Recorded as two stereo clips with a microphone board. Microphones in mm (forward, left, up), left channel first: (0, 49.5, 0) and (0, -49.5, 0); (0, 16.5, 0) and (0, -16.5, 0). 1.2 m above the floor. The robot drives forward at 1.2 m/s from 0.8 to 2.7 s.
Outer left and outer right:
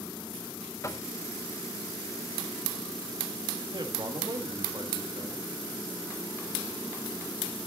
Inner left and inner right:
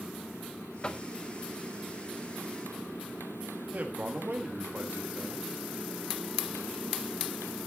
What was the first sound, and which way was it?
Knocking, 35° left (ahead or behind).